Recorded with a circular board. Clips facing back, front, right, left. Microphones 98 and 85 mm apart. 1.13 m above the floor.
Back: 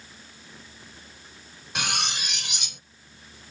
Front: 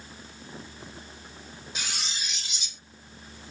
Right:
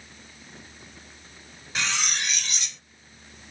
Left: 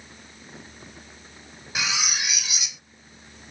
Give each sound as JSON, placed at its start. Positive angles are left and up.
{"t": 1.8, "sound": "cutlery clinking", "azimuth_deg": 175}